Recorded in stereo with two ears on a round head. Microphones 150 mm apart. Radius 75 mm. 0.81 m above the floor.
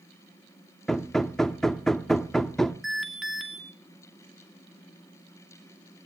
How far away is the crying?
I don't hear crying.